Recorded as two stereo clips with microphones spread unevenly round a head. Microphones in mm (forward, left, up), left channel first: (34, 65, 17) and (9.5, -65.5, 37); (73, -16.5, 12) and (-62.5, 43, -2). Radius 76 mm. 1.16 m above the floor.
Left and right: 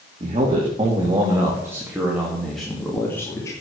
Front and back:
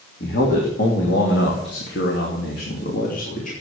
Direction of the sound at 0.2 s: 50° right.